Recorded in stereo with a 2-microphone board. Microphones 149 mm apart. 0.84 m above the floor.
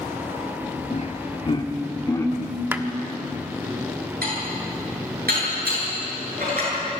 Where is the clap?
15° right (ahead or behind), 1.1 m.